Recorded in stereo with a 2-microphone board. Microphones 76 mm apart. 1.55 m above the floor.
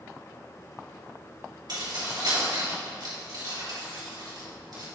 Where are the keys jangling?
60° right (ahead or behind), 2.5 m.